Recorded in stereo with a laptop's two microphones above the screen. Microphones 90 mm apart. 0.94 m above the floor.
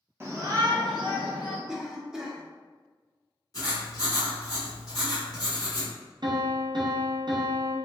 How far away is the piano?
About 0.5 m.